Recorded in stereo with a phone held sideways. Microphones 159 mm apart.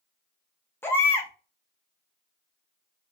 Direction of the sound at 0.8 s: 15° left (ahead or behind).